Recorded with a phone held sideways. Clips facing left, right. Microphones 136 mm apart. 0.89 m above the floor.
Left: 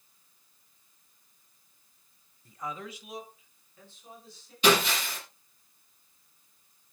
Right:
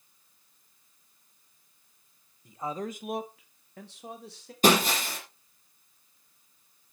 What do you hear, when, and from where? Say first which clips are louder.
2.5 s a man speaking: right 5 dB; 15° right (ahead or behind), 1.3 m; by 4.5 s 75° right (ahead or behind), 3 m
4.6 s breaking glass: right 2 dB; 45° right (ahead or behind), 7 m